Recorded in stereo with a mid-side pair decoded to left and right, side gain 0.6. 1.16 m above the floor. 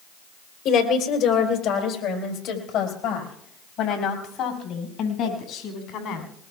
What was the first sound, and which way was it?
A woman speaking, 70° left.